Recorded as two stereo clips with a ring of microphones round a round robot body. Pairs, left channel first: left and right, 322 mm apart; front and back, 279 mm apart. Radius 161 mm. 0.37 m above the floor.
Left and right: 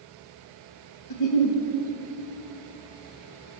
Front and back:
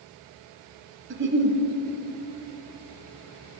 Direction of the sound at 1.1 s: 130° left.